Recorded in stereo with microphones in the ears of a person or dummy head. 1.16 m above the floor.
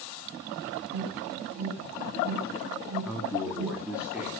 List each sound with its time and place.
0.9 s an alarm: 80° right, 6 m
3.0 s a man speaking: 10° right (ahead or behind), 2.5 m